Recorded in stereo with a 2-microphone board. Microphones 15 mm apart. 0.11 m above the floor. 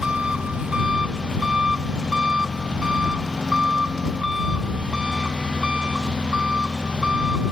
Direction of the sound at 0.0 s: 60° right (ahead or behind).